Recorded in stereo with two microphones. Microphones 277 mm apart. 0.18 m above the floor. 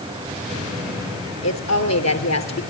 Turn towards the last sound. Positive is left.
turn(degrees=65)  # may be behind; listen again after turning